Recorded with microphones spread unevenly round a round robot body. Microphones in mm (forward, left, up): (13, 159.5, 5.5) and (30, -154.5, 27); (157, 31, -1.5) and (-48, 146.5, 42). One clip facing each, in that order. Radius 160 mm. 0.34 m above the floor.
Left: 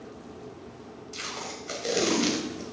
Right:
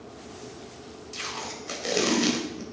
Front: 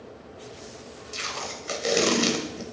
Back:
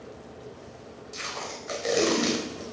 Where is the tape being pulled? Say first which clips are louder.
Even, front 1 dB; straight ahead, 1.4 m.